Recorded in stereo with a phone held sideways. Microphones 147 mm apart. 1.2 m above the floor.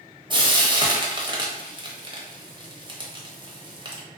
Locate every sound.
0.3 s frying: 30° right (ahead or behind), 0.7 m